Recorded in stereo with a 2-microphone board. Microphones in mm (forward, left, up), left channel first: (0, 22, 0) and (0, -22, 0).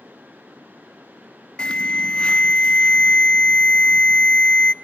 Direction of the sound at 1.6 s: 25° left (ahead or behind).